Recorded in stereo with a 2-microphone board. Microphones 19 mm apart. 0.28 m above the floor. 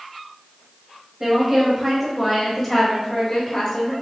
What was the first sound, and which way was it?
A woman speaking, 20° right (ahead or behind).